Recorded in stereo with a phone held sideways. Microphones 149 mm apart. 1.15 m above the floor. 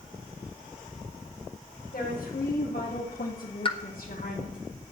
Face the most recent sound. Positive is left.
turn(degrees=35)  # may be behind; listen again after turning